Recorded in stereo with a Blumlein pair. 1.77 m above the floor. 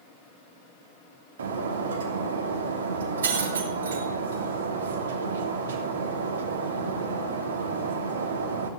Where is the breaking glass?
65° right, 2.5 m.